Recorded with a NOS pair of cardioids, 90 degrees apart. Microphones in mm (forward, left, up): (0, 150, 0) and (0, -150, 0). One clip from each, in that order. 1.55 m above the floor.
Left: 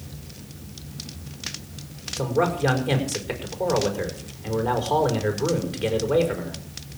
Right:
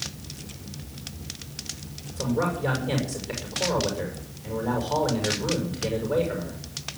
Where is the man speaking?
45° left, 6 m.